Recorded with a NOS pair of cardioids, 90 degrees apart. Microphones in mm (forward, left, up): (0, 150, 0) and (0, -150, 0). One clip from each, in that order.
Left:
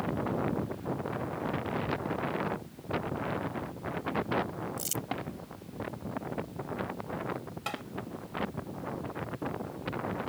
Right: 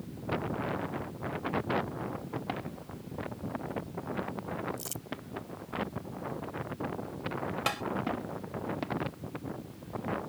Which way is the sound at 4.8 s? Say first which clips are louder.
Left 6 dB; 35° left.